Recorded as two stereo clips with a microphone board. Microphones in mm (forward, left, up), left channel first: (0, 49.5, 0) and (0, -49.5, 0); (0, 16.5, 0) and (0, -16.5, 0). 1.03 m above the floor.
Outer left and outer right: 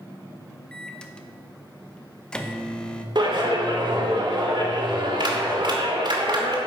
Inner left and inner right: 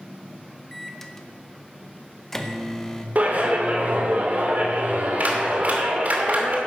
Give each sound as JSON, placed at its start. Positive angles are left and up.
{"t": 0.7, "sound": "a microwave", "side_deg": 10, "distance_m": 0.8}
{"t": 3.1, "sound": "a clap", "side_deg": -45, "distance_m": 2.0}